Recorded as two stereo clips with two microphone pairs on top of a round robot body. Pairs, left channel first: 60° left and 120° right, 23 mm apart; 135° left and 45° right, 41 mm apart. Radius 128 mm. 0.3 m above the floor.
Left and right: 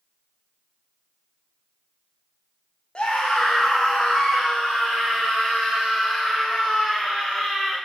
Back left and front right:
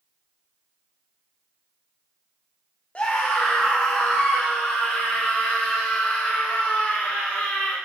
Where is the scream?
95° left, 2.0 m; by 7.8 s 105° left, 6 m.